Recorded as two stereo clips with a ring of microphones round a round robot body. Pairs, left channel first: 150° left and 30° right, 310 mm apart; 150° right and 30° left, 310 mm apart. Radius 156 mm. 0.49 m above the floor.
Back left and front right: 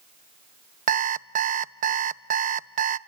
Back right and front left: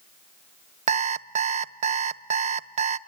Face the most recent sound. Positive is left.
turn(degrees=-5)